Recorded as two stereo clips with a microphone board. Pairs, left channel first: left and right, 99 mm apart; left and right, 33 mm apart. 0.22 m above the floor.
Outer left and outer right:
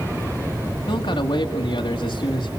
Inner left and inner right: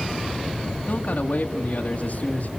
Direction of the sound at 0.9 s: 45° left (ahead or behind).